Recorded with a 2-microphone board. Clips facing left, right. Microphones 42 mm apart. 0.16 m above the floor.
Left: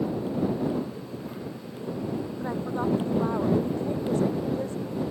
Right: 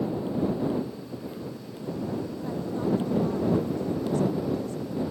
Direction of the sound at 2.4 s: 40° left (ahead or behind).